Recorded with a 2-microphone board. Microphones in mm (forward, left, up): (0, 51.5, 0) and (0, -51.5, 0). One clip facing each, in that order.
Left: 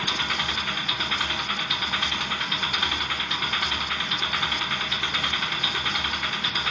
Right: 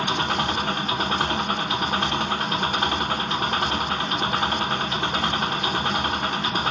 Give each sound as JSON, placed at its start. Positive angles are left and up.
{"t": 0.0, "sound": "an engine running", "side_deg": -35, "distance_m": 0.9}